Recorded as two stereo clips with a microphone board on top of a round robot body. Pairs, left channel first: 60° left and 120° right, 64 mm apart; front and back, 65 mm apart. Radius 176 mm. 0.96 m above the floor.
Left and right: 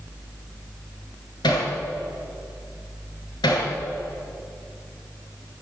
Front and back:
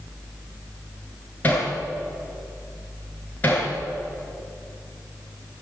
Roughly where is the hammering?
Ahead left.